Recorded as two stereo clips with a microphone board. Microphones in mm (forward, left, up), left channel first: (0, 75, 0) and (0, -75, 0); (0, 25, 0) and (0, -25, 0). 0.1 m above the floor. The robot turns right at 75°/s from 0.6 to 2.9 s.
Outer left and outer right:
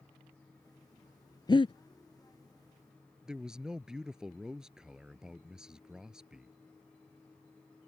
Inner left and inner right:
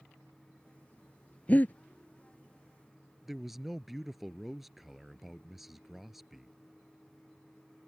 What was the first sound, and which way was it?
Breathing, 30° left (ahead or behind).